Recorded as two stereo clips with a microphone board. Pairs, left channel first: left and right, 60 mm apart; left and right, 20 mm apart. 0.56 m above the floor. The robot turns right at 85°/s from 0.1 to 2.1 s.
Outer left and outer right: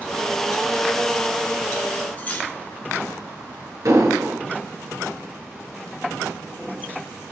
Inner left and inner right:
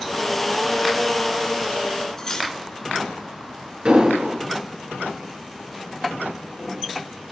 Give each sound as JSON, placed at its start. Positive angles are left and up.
{"t": 2.2, "sound": "cutlery clinking", "side_deg": 25, "distance_m": 4.5}
{"t": 3.9, "sound": "an explosion", "side_deg": -70, "distance_m": 8.5}